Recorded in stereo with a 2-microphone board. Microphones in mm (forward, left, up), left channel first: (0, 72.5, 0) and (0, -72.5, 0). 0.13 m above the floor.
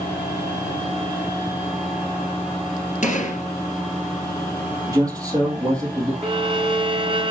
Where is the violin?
40° right (ahead or behind), 1.1 m.